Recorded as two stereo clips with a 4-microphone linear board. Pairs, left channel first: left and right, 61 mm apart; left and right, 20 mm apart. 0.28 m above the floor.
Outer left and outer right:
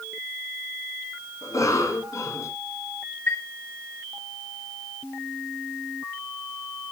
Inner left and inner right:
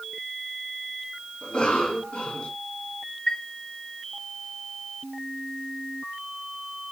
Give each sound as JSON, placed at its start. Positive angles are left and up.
{"t": 1.4, "sound": "a cough", "side_deg": 65, "distance_m": 3.0}
{"t": 3.3, "sound": "a chime", "side_deg": 40, "distance_m": 1.8}